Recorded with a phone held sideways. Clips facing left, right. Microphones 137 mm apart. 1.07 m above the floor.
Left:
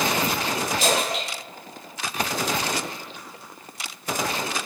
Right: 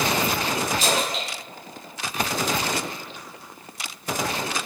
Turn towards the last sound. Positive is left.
turn(degrees=65)  # may be behind; listen again after turning